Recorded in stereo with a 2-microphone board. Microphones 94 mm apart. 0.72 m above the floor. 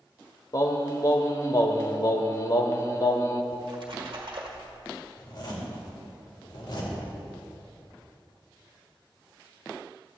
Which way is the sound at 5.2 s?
55° left (ahead or behind).